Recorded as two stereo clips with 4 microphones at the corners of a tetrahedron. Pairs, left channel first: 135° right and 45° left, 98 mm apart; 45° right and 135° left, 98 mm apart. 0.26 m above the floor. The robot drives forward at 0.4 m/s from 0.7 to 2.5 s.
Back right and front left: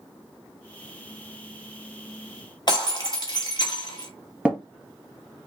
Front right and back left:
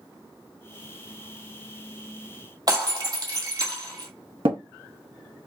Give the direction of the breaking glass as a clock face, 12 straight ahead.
6 o'clock.